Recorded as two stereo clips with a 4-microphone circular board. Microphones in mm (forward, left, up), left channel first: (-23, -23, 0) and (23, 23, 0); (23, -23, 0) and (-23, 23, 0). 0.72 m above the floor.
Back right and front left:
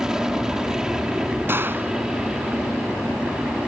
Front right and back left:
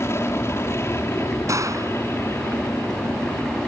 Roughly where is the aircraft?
Ahead right.